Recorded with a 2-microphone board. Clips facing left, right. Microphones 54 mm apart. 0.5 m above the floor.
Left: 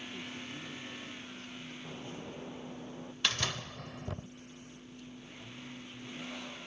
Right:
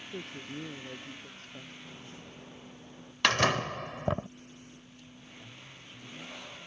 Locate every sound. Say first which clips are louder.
0.1 s a woman speaking: right 2 dB; 50° right (ahead or behind); by 1.7 s 55° right (ahead or behind)
1.8 s a bird: left 4 dB; 25° left (ahead or behind)
3.2 s a door slam: right 9 dB; 65° right (ahead or behind)